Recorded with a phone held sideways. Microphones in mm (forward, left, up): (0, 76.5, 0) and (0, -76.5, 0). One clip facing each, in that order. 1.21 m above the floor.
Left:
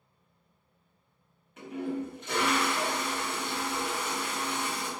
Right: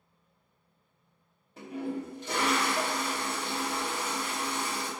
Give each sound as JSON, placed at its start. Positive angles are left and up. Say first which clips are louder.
{"t": 1.6, "sound": "a toilet flushing", "louder": "left 1 dB", "side_deg": -35, "distance_m": 0.8}